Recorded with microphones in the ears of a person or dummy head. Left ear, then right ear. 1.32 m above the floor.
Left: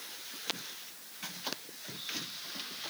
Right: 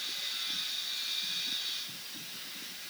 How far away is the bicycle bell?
No bicycle bell in this recording.